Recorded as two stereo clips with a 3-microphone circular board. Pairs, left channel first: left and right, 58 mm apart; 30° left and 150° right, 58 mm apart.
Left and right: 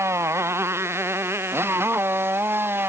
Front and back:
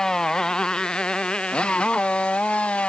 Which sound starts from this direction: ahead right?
A motorcycle, at 0.0 s.